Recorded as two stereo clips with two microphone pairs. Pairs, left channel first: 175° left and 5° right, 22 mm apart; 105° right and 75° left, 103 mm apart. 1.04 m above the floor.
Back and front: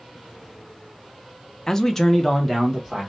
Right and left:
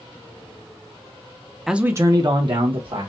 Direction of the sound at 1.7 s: 165° left.